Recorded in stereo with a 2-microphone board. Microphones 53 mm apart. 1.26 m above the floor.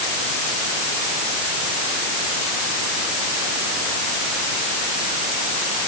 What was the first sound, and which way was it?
Only background noise.